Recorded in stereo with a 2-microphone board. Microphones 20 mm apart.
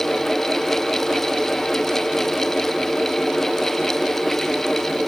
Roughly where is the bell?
No bell in this recording.